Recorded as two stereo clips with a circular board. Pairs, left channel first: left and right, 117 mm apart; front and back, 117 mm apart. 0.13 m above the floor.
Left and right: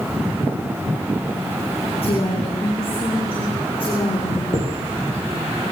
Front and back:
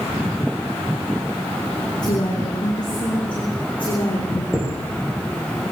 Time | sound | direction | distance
2.0 | a woman speaking | 50° left | 7 m
4.5 | a chime | 95° left | 8.5 m